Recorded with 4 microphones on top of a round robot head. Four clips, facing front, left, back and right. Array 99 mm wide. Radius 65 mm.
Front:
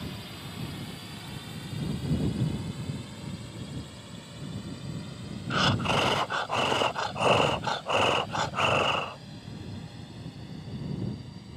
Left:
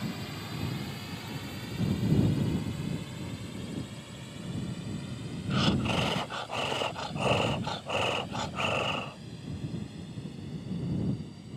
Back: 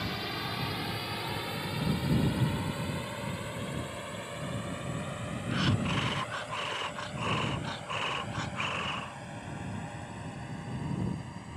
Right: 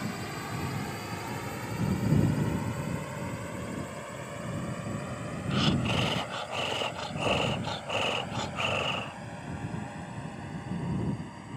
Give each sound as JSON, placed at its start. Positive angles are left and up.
{"t": 0.0, "sound": "a drone", "azimuth_deg": -145}
{"t": 5.5, "sound": "breathing", "azimuth_deg": 10}